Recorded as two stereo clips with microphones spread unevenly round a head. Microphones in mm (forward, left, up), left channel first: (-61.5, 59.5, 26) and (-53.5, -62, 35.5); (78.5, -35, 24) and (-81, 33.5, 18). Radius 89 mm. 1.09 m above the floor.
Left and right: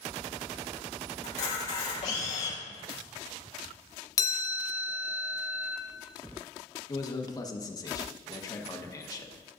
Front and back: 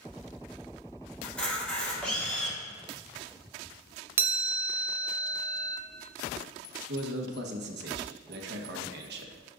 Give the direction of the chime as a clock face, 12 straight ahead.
9 o'clock.